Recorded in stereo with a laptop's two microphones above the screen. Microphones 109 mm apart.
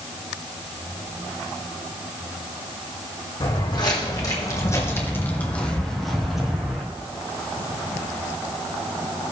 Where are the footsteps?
45° left (ahead or behind), 3 m; by 6.8 s 10° right (ahead or behind), 2.5 m.